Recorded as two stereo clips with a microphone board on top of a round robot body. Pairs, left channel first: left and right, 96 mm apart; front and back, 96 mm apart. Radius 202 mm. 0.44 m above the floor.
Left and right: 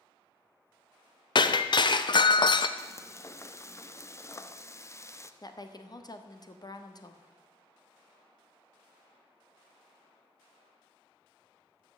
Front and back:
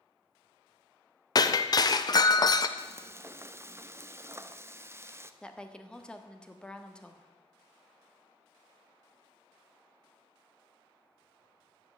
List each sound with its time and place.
1.4 s breaking glass: 50° left, 0.6 m
2.8 s frying: 130° left, 1.1 m
5.4 s a woman speaking: 75° left, 1.7 m